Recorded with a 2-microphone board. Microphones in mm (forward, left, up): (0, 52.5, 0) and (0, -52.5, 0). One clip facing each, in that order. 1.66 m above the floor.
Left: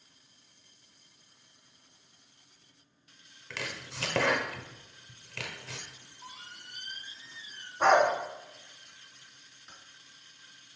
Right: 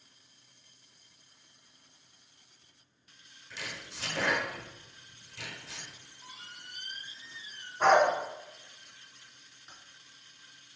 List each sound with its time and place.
3.5 s chopping: 85° left, 1.0 m
5.9 s a squeak: 30° left (ahead or behind), 2 m
7.8 s a dog barking: 5° left (ahead or behind), 2 m
9.7 s typing on a keyboard: 5° right (ahead or behind), 3 m